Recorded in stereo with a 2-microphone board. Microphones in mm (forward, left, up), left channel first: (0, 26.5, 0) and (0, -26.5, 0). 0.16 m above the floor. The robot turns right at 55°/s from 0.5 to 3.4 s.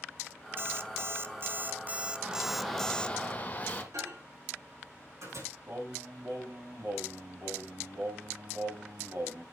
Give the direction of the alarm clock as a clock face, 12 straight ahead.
4 o'clock.